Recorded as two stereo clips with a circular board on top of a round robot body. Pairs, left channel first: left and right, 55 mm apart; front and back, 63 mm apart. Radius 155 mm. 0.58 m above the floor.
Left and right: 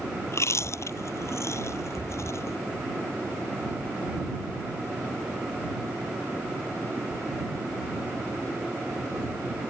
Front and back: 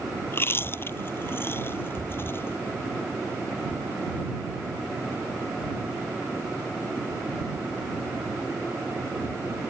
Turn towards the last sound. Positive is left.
turn(degrees=55)